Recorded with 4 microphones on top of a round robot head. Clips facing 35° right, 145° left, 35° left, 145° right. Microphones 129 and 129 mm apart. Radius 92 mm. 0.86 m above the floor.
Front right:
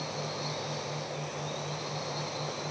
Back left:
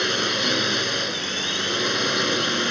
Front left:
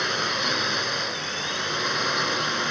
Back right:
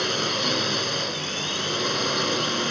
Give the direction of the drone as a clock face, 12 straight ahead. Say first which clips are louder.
Back left 10 dB, back right 2 dB; 7 o'clock.